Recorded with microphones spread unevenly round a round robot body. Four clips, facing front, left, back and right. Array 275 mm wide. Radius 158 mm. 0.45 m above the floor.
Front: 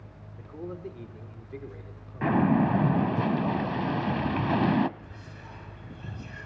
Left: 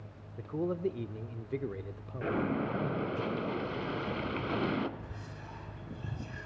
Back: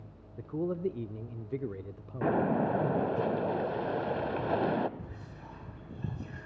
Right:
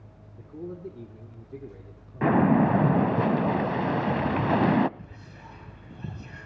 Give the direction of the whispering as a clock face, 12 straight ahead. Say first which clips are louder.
Even, even; 5 o'clock.